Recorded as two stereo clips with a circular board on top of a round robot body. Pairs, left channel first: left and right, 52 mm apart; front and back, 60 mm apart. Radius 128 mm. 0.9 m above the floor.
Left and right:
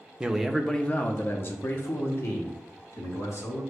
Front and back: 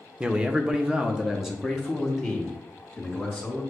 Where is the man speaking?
140° right, 0.7 m; by 3.6 s 90° left, 2.0 m.